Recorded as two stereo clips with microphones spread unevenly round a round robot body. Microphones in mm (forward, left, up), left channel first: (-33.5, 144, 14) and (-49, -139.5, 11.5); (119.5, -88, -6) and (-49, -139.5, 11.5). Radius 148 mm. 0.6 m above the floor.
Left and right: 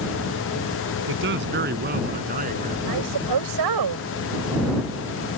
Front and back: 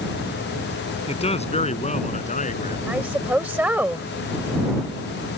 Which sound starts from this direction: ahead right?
A man speaking, at 1.1 s.